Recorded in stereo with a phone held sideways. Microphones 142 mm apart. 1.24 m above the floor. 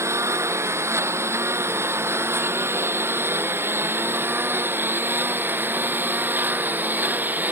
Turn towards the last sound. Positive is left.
turn(degrees=-15)  # may be behind; listen again after turning